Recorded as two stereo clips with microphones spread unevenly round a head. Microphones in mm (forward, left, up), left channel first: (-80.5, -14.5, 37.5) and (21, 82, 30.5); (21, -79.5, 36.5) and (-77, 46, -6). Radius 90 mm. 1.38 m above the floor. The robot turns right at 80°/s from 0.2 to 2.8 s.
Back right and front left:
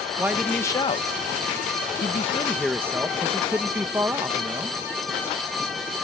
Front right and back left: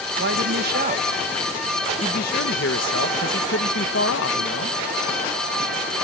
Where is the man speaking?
115° left; by 4.8 s 35° right.